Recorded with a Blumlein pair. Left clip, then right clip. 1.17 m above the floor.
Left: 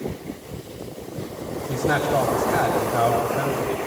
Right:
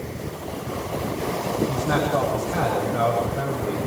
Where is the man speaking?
10° left, 6 m.